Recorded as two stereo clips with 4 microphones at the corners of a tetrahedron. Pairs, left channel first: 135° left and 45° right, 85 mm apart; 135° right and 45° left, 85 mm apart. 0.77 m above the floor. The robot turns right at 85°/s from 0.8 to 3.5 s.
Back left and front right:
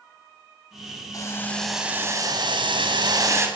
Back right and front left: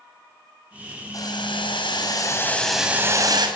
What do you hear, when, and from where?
1.1 s boiling: straight behind, 6.5 m; by 3.5 s 15° left, 6.5 m